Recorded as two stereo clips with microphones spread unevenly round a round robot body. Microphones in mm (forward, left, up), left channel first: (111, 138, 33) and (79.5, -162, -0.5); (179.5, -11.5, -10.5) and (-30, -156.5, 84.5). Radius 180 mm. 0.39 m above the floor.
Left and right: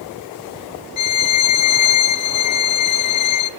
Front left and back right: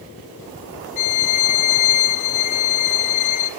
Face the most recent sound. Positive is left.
turn(degrees=50)